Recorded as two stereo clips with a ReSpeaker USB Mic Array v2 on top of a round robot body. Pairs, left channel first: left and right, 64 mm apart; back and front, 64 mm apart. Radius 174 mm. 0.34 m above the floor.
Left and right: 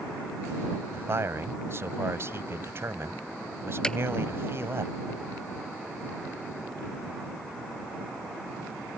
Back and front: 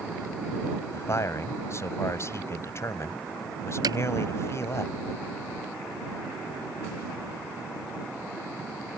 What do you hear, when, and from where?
0.9 s a man speaking: 140° right
3.8 s hammering: 10° left